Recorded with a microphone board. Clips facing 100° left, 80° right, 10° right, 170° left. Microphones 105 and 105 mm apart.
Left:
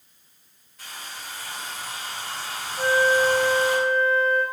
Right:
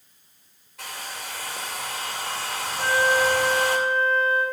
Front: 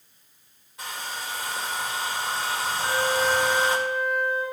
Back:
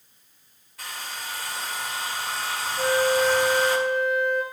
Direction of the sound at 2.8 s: 155° left.